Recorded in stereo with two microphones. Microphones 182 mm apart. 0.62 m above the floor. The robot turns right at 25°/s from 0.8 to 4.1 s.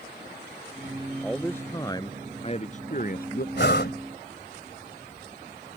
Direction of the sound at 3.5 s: 75° left (ahead or behind).